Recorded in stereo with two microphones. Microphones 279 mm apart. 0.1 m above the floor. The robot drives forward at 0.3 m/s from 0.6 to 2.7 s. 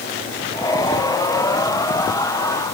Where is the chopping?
No chopping in this recording.